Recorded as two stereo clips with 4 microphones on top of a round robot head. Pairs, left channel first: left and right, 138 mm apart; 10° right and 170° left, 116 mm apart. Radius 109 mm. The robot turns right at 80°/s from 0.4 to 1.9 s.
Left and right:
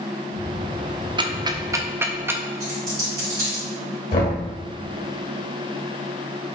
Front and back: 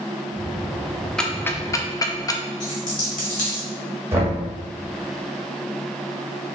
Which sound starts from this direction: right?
Ticking, at 1.2 s.